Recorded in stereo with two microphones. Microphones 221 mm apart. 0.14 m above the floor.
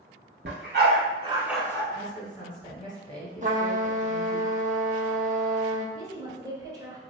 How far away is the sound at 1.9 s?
About 1.4 m.